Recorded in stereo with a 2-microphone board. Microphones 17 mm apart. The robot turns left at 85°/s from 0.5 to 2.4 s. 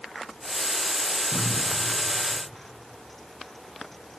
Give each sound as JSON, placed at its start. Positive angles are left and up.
{"t": 1.3, "sound": "a cupboard door", "side_deg": -10, "distance_m": 9.0}